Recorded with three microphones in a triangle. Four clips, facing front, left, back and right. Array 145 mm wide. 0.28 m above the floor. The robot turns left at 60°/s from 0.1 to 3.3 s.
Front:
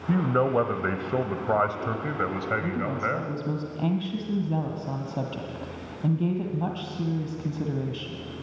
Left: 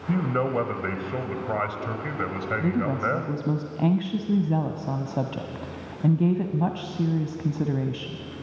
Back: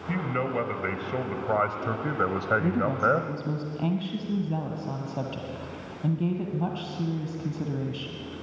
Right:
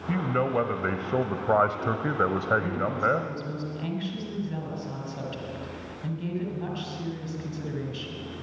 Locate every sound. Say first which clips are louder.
0.1 s a man speaking: left 1 dB, front 6 dB; 15° left, 1.2 m; by 3.3 s 175° right, 1.2 m
2.6 s a woman speaking: left 2 dB, back 4 dB; 130° left, 1.5 m; by 8.2 s 85° left, 1.5 m